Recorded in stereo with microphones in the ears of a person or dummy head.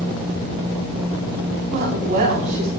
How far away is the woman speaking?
About 9.5 m.